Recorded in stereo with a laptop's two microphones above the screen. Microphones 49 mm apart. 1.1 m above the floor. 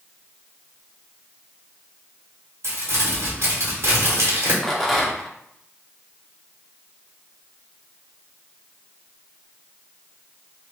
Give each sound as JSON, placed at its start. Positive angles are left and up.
{"t": 2.6, "sound": "crumpling", "side_deg": -65, "distance_m": 1.3}
{"t": 4.6, "sound": "a rattle", "side_deg": 10, "distance_m": 0.9}